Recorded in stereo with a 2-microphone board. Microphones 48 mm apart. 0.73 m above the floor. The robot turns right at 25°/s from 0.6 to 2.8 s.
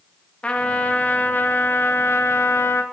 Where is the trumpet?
20° left, 0.5 m; by 2.8 s 75° left, 0.5 m.